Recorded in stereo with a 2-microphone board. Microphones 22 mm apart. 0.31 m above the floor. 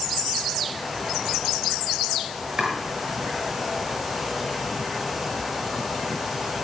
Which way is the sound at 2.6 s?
35° right (ahead or behind).